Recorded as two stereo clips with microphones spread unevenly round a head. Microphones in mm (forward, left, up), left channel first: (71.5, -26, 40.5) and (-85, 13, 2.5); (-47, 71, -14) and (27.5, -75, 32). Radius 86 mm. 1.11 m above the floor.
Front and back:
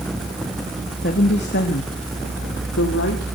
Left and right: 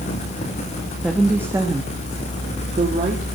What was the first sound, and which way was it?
A woman speaking, 25° left.